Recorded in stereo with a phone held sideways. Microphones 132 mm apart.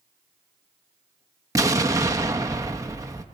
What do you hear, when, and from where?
1.6 s an explosion: 25° right (ahead or behind), 1.0 m